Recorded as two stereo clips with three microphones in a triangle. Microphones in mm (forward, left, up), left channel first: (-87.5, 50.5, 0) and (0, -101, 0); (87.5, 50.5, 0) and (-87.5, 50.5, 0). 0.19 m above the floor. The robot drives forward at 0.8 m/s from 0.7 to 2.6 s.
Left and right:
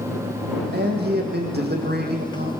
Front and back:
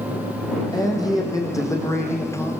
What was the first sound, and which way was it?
A man speaking, 65° right.